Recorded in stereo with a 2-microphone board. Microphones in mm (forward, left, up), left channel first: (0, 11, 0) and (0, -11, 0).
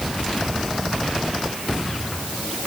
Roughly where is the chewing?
I don't hear chewing.